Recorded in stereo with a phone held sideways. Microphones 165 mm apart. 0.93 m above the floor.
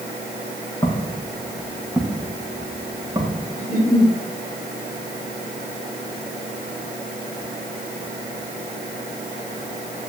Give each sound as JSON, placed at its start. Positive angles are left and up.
{"t": 0.8, "sound": "footsteps", "side_deg": 25, "distance_m": 3.5}
{"t": 3.6, "sound": "a giggle", "side_deg": 60, "distance_m": 5.5}